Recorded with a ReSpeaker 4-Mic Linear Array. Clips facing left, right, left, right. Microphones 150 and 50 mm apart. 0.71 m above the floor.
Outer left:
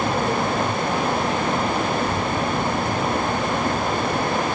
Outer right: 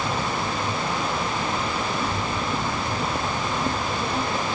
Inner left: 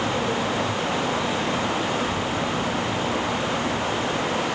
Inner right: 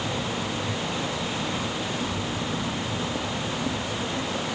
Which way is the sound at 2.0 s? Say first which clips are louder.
Outer left 4 dB, inner left 5 dB; 60° left (ahead or behind).